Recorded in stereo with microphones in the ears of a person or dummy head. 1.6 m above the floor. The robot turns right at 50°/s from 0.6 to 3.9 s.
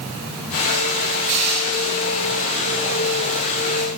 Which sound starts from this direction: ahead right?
Crushing, at 1.3 s.